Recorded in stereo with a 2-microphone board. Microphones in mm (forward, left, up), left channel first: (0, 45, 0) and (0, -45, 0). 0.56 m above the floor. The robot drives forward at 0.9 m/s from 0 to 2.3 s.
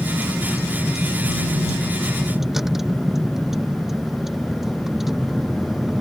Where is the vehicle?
Centre (ahead or behind); by 6.0 s 5° right (ahead or behind).